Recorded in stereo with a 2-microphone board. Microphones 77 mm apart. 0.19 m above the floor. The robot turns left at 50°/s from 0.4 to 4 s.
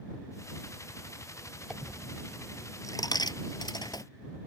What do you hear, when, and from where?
1.7 s a dropped coin: 5° right (ahead or behind); by 4.0 s 65° left (ahead or behind)